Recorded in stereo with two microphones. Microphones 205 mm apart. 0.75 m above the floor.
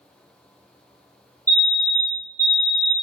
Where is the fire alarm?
15° right (ahead or behind), 1.4 m.